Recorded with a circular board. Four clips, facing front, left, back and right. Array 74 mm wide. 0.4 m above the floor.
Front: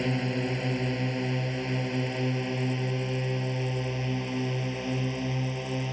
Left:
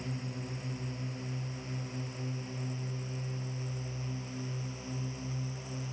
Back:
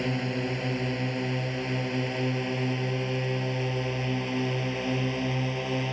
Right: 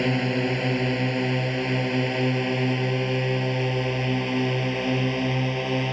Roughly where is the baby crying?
I don't hear a baby crying.